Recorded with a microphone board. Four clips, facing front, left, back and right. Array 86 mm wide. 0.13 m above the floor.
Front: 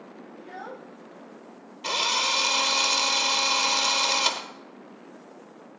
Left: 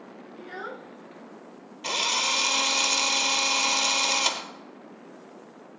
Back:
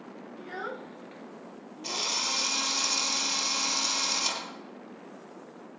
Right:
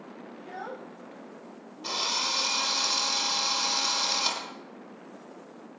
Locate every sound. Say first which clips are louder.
0.4 s a child speaking: left 2 dB, back 2 dB; 115° left, 0.8 m; by 2.2 s 175° left, 1.7 m
1.8 s a drill: left 4 dB, front 8 dB; 45° left, 1.3 m